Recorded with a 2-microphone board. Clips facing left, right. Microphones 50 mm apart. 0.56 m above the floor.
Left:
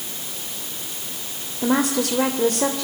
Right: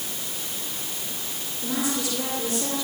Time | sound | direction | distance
1.6 | a woman speaking | 60° left (ahead or behind) | 2.5 m